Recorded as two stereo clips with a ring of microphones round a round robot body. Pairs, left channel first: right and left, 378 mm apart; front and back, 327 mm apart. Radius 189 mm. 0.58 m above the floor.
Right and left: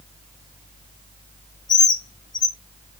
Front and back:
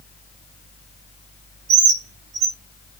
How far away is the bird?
About 3.5 m.